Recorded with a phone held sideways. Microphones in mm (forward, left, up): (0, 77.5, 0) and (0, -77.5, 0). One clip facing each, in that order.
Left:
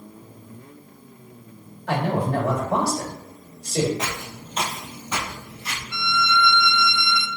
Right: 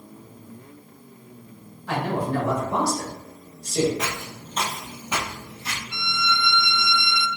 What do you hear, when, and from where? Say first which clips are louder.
1.9 s a man speaking: left 2 dB; 65° left (ahead or behind), 1.9 m
4.0 s footsteps: even; 25° left (ahead or behind), 1.2 m; by 5.8 s 30° right (ahead or behind), 1.4 m
5.9 s a violin: left 5 dB; 20° right (ahead or behind), 0.5 m